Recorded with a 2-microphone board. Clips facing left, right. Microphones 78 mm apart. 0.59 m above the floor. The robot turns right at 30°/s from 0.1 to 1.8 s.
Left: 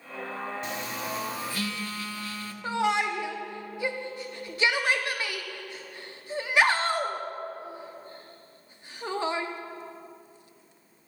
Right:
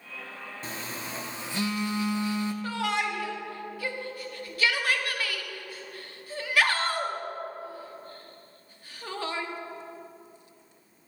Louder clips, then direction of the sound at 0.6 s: Left 4 dB; 65° right.